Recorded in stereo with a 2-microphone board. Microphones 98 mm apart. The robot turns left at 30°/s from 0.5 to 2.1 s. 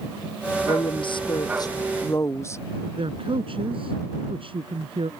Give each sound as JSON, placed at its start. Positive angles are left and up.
{"t": 0.7, "sound": "a woman speaking", "azimuth_deg": 75}
{"t": 3.0, "sound": "a man speaking", "side_deg": -65}